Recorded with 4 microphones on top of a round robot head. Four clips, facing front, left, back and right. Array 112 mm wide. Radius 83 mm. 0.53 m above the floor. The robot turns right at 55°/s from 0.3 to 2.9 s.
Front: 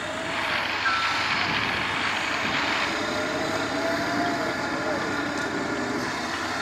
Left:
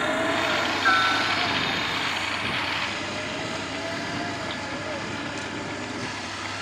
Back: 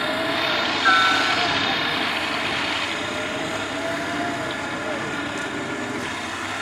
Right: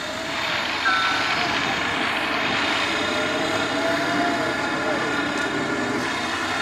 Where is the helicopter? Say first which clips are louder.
Left 4 dB, back 6 dB; 135° left; by 6.6 s 85° right.